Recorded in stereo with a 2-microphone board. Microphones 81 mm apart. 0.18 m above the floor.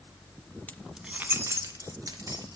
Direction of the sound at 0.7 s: 20° left (ahead or behind).